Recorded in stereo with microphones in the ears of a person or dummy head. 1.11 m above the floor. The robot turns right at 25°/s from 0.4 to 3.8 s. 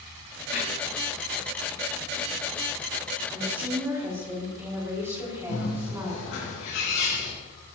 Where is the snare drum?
55° left (ahead or behind), 7 m.